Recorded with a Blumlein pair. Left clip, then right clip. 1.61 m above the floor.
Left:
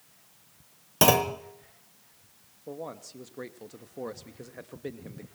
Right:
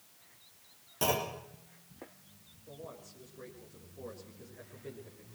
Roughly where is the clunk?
Ahead left.